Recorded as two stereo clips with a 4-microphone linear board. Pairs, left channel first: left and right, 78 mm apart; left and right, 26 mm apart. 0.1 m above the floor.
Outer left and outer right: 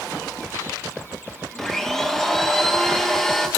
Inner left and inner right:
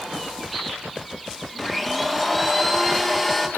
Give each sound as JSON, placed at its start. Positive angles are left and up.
{"t": 1.6, "sound": "a blender", "side_deg": 5, "distance_m": 2.0}